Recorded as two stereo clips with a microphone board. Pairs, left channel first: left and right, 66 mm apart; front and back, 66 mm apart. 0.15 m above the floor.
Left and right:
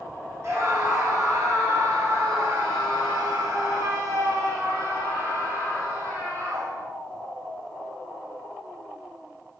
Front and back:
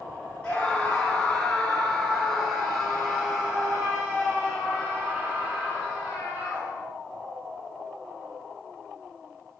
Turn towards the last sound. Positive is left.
turn(degrees=-110)